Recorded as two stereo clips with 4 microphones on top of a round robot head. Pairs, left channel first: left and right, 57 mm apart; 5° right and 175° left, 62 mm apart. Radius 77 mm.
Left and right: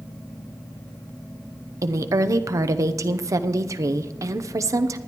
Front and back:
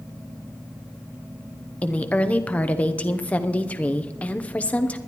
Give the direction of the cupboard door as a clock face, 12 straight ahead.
No cupboard door in this recording.